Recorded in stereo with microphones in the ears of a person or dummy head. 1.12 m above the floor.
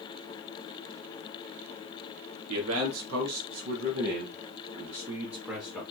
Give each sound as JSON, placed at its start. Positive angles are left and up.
{"t": 2.5, "sound": "a man speaking", "side_deg": -80, "distance_m": 1.3}